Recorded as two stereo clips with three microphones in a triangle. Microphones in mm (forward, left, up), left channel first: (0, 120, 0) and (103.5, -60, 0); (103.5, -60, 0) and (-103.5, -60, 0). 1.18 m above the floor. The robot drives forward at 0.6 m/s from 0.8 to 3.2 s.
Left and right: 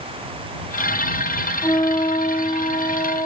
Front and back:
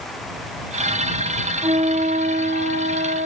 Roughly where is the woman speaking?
I don't hear a woman speaking.